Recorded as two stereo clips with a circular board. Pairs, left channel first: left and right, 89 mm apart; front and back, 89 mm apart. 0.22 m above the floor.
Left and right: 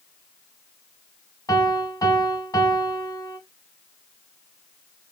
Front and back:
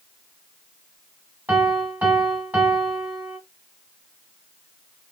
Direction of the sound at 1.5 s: 120° left.